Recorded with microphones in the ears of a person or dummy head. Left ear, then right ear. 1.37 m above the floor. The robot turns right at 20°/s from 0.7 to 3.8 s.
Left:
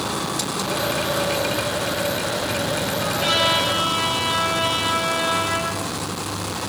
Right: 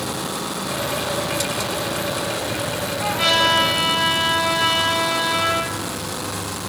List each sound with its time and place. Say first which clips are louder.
3.0 s a trumpet: right 3 dB; 60° right (ahead or behind), 3 m; by 5.8 s 45° right (ahead or behind), 3 m